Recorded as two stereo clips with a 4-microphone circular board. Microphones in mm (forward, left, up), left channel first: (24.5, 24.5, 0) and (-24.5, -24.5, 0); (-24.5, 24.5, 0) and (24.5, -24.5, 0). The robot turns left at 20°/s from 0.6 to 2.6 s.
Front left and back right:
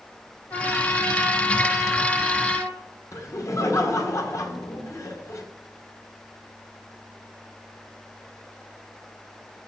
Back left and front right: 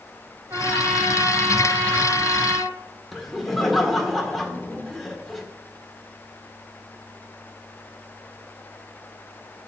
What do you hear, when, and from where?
0.5 s a trumpet: 10° right, 2.5 m; by 2.7 s 50° right, 2.5 m
3.1 s laughter: 50° left, 1.7 m